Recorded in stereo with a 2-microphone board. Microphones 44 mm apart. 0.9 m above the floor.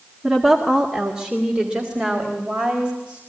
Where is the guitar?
No guitar in this recording.